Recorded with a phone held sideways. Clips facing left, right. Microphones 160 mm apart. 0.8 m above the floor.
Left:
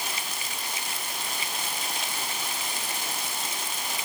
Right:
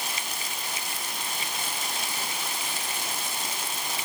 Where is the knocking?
I don't hear knocking.